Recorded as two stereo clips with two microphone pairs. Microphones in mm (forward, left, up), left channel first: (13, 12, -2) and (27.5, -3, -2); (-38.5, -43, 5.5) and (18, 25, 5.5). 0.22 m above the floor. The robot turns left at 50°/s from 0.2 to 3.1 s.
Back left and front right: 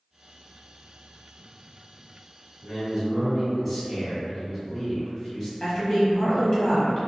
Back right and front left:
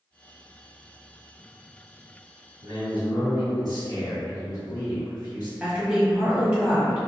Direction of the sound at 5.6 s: 120° left.